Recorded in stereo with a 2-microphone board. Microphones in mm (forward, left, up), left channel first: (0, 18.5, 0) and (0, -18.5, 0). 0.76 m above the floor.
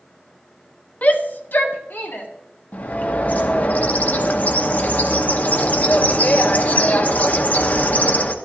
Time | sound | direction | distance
1.0 | a shout | 45° left (ahead or behind) | 0.7 m
2.7 | a bird | 45° left (ahead or behind) | 0.8 m